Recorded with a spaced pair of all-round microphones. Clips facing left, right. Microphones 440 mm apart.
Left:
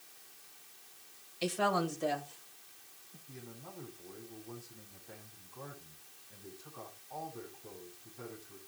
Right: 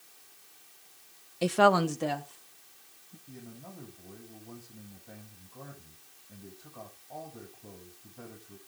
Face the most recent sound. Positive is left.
turn(degrees=-60)  # may be behind; listen again after turning